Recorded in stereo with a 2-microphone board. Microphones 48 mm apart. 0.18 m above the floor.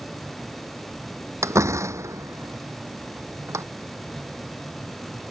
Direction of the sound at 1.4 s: 80° right.